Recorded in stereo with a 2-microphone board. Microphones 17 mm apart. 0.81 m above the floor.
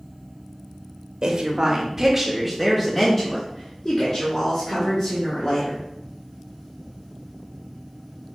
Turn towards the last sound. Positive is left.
turn(degrees=50)  # may be behind; listen again after turning